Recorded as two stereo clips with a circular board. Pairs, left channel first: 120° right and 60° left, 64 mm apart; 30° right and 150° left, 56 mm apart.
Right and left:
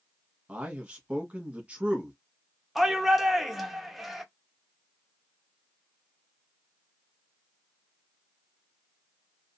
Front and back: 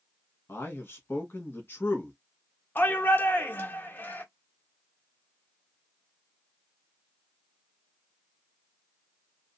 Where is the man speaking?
Straight ahead, 1.1 m.